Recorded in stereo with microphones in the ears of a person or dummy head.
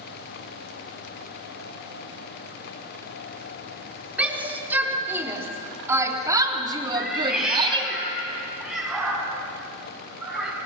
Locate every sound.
4.2 s a shout: 10° right (ahead or behind), 4 m; by 8.0 s 35° right (ahead or behind), 3 m
7.0 s a cat meowing: 5° right (ahead or behind), 6.5 m